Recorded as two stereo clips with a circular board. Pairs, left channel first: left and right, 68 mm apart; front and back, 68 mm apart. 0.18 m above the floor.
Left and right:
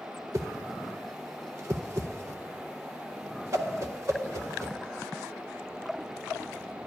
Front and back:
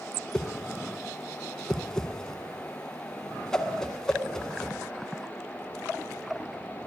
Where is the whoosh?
80° right, 0.5 m.